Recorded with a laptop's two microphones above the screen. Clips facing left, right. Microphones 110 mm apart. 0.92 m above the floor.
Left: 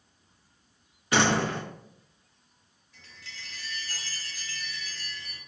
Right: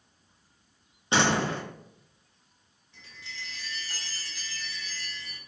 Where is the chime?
20° right (ahead or behind), 1.7 m.